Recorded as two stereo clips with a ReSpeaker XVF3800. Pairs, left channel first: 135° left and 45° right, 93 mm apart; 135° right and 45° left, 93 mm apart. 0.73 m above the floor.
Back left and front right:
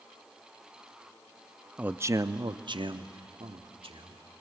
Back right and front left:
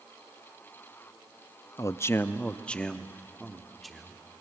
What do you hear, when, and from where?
1.8 s a man speaking: 115° right, 0.5 m; by 4.2 s 45° right, 1.7 m